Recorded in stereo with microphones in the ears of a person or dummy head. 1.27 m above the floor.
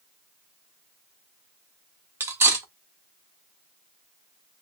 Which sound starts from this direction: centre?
Cutlery clinking, at 2.2 s.